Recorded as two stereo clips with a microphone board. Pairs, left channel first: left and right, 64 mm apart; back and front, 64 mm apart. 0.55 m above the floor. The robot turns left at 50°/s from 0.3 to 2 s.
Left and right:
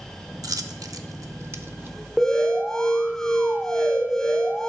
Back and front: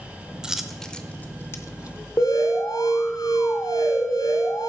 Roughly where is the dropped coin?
Right.